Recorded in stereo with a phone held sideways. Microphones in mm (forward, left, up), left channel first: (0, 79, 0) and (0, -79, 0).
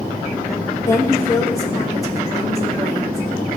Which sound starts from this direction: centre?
A woman speaking, at 0.8 s.